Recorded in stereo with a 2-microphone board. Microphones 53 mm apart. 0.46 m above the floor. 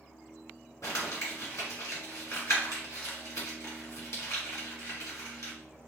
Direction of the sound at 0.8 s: 85° left.